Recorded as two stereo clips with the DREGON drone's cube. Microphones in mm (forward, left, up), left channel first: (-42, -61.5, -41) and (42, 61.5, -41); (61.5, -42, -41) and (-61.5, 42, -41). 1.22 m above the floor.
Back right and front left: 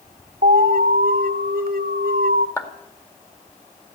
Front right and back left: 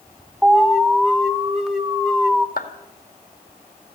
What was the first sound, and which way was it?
An alarm, 60° left.